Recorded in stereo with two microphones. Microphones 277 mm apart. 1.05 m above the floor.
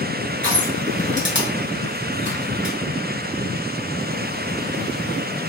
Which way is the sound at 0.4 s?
45° left (ahead or behind).